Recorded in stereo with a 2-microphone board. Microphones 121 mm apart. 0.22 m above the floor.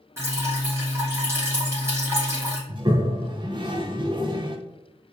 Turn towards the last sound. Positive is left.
turn(degrees=-40)  # may be behind; listen again after turning